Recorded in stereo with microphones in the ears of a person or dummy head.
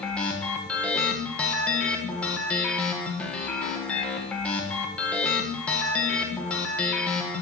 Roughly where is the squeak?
No squeak in this recording.